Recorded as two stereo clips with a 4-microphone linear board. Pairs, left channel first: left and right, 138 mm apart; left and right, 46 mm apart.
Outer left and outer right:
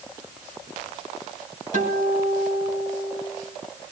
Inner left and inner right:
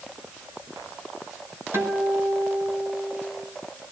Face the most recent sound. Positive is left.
turn(degrees=-65)  # may be behind; listen again after turning